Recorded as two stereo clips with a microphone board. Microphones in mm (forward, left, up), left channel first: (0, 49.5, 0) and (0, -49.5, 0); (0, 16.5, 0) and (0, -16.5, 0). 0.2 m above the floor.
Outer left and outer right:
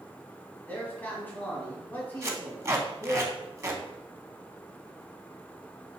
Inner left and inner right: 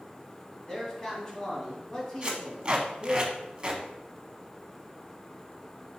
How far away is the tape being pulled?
About 0.6 m.